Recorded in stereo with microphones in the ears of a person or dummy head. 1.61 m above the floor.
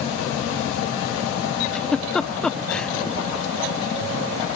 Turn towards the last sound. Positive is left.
turn(degrees=0)  # may be behind; listen again after turning